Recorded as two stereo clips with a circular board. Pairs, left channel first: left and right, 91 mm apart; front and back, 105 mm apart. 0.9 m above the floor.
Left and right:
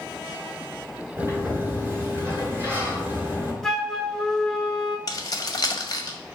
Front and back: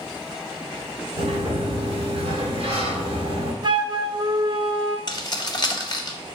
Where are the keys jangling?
50° left, 0.6 m.